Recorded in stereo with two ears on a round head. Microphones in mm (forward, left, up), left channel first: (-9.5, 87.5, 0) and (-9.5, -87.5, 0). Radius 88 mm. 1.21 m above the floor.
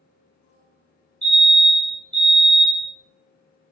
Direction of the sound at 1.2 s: 5° left (ahead or behind).